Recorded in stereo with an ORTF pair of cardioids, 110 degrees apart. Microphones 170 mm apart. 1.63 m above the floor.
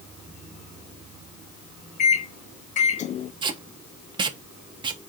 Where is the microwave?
45° left, 0.6 m.